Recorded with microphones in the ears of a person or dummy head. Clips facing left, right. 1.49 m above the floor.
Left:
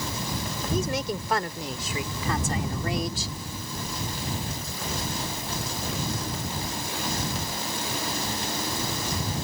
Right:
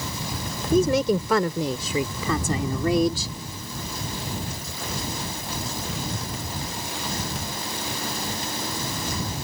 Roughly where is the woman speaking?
Right.